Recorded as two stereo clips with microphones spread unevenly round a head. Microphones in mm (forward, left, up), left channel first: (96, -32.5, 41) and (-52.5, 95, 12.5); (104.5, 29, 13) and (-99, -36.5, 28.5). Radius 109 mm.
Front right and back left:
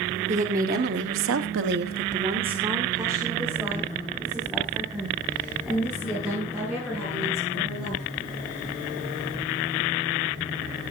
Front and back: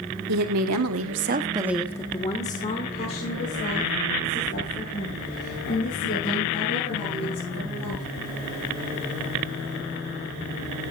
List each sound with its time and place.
0.3 s a woman speaking: 160° right, 1.9 m; by 8.0 s 50° left, 10 m